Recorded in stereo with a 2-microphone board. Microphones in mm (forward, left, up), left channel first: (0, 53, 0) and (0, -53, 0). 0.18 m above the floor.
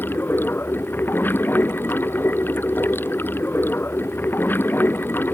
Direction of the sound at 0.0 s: 20° left (ahead or behind).